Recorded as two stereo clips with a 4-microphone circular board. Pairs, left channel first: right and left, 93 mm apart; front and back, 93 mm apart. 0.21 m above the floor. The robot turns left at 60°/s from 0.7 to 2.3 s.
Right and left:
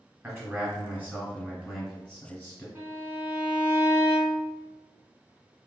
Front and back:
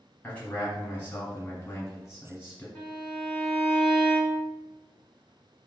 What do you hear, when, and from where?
0.2 s a man speaking: 60° left, 1.4 m; by 2.6 s 35° right, 1.4 m
2.8 s a violin: 75° left, 1.6 m